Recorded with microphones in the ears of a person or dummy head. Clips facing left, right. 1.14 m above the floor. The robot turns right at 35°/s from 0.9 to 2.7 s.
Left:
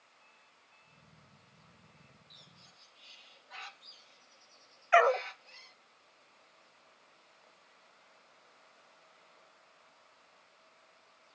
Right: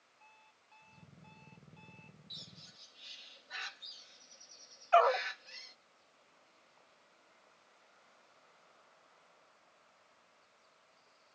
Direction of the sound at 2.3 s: 30° right (ahead or behind).